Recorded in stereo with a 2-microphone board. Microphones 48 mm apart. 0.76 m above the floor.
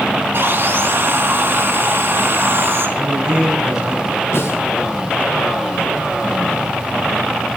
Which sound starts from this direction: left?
A snare drum, at 4.3 s.